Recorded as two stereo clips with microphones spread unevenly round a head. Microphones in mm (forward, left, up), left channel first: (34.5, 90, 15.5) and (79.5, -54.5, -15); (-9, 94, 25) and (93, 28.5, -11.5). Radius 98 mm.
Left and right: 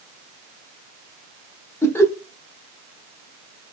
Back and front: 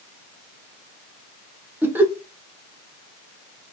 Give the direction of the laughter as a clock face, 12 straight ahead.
11 o'clock.